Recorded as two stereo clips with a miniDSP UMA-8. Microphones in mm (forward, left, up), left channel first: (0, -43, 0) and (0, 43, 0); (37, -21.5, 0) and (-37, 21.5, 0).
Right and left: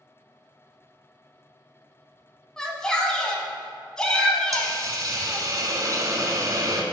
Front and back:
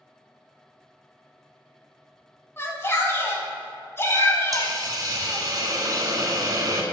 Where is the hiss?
125° left, 0.9 m.